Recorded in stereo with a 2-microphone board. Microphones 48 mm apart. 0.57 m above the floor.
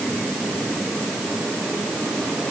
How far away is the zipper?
I don't hear a zipper.